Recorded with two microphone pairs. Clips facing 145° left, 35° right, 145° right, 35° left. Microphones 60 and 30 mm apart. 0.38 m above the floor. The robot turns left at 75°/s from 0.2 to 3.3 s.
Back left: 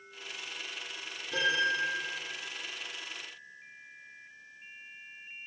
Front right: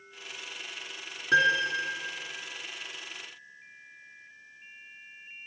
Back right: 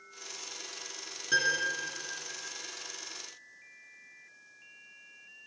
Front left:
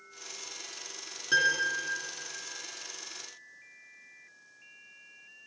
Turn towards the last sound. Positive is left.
turn(degrees=170)